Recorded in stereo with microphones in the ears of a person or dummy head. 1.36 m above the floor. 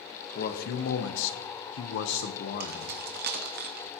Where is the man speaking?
50° left (ahead or behind), 1.4 m; by 3.0 s 55° left (ahead or behind), 1.3 m.